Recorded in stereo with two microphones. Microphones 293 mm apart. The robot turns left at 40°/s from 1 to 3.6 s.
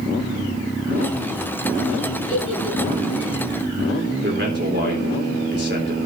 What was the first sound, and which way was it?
A giggle, 35° right (ahead or behind).